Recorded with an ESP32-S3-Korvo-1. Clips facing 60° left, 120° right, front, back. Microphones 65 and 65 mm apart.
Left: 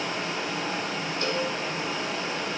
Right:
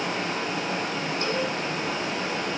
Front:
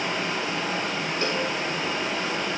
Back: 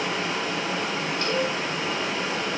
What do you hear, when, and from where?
0.0 s running water: 85° right, 7.5 m
1.2 s a cowbell: 65° right, 3 m